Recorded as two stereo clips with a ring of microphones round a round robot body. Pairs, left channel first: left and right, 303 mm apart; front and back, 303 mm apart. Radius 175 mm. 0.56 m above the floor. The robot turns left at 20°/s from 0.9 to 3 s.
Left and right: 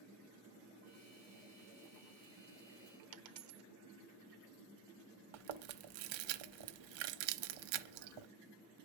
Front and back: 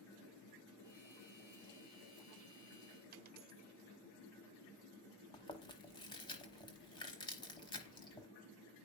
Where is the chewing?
80° right, 0.9 m.